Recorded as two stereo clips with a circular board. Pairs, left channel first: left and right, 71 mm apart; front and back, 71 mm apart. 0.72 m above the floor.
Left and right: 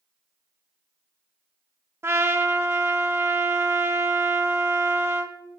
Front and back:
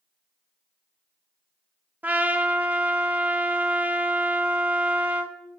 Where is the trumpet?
125° right, 1.1 m.